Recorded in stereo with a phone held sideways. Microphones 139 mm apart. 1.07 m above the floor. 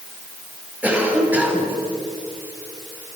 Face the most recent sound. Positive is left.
turn(degrees=-10)  # may be behind; listen again after turning